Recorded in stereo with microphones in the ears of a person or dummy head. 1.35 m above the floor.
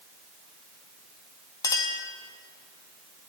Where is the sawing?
No sawing in this recording.